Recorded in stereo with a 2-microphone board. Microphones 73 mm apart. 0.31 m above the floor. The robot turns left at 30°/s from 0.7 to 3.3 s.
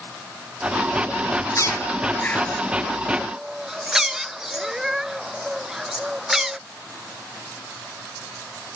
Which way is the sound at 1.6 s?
45° left (ahead or behind).